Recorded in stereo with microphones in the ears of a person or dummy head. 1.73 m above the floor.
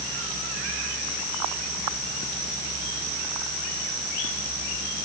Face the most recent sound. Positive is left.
No sound to turn to.